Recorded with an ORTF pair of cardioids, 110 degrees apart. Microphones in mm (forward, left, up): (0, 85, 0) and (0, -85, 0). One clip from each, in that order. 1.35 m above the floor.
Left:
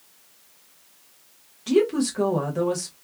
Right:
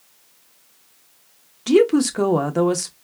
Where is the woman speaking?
40° right, 1.0 m.